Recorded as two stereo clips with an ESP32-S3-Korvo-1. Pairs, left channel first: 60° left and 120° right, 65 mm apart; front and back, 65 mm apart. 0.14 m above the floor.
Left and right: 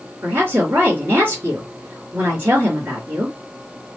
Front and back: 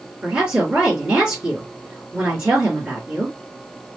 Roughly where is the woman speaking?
Behind right.